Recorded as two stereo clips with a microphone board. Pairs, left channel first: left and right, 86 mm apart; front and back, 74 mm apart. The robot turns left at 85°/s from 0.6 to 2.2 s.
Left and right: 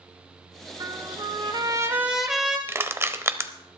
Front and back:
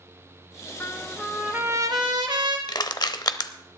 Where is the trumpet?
55° right, 1.7 m; by 2.6 s 175° right, 1.7 m.